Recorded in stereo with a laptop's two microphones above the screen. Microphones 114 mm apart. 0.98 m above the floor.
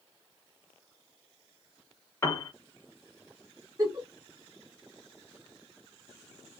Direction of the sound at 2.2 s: 20° left (ahead or behind).